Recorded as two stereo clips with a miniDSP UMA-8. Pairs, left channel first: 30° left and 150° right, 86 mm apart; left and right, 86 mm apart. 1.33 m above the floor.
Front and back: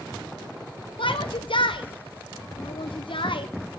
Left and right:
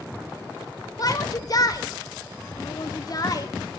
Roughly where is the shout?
Ahead left.